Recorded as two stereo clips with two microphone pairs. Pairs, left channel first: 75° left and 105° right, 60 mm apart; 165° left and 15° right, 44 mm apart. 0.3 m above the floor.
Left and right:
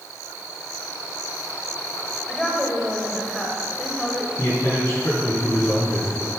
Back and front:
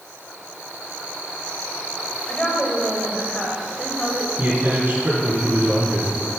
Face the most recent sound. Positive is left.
turn(degrees=35)